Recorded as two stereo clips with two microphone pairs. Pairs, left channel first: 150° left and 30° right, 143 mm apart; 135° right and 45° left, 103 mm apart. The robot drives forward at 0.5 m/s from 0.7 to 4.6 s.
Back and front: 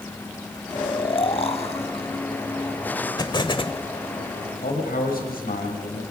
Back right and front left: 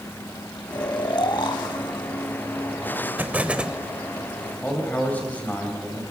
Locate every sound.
0.7 s snoring: 165° right, 1.0 m; by 2.1 s 170° right, 1.6 m
3.2 s an explosion: 105° left, 1.2 m; by 3.8 s 125° left, 1.3 m
4.6 s a man speaking: 150° left, 7 m